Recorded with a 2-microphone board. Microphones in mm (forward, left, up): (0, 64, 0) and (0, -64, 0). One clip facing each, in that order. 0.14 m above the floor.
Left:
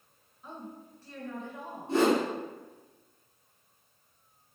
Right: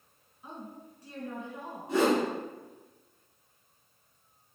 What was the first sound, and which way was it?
A woman speaking, 15° right (ahead or behind).